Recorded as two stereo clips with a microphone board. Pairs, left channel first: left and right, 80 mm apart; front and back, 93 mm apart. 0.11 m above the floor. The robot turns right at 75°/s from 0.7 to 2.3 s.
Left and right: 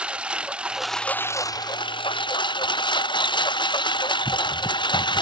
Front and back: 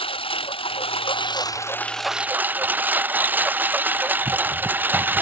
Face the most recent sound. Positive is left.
turn(degrees=110)